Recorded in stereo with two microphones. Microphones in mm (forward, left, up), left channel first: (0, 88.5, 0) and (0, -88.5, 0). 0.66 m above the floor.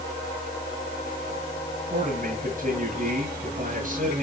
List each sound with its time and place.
1.9 s a man speaking: 45° right (ahead or behind), 8 m